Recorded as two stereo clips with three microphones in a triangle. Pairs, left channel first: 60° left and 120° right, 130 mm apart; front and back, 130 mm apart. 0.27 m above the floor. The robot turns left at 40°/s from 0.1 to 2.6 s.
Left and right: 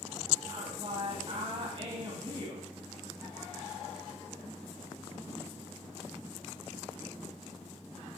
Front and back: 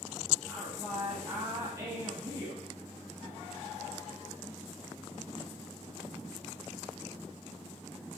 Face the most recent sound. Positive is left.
turn(degrees=-160)